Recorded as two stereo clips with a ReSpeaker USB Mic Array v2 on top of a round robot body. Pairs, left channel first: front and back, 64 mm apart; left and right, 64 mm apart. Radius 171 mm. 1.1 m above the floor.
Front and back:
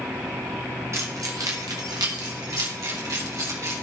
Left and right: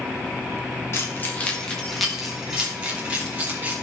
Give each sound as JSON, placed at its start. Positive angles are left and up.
{"t": 0.9, "sound": "keys jangling", "azimuth_deg": 135, "distance_m": 1.7}